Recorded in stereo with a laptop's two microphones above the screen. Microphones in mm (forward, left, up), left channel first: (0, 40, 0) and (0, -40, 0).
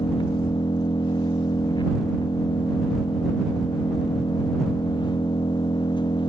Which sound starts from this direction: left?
An engine running, at 0.0 s.